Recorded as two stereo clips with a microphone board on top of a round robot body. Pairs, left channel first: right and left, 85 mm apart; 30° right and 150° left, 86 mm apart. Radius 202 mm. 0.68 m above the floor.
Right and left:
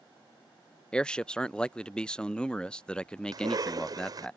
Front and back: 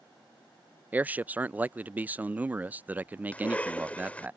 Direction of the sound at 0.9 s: 160° right.